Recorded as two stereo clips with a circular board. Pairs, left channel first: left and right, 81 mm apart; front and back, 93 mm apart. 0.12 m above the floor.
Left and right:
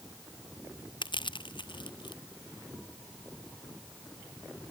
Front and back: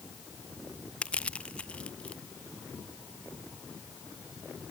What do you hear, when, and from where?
1.0 s crushing: 75° left